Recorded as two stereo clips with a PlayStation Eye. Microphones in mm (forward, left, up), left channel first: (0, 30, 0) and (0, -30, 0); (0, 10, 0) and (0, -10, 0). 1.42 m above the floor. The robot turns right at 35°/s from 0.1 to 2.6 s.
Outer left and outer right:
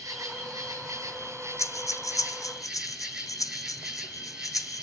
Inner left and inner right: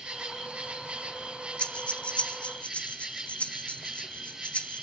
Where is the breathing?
60° left (ahead or behind), 0.8 m; by 4.8 s 75° left (ahead or behind), 0.8 m.